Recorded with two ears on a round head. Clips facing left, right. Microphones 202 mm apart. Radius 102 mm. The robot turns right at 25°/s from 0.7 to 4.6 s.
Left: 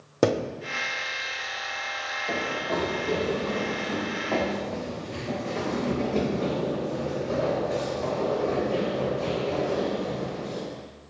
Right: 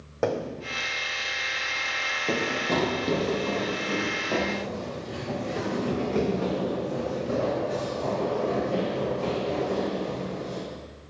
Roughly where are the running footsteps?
Right.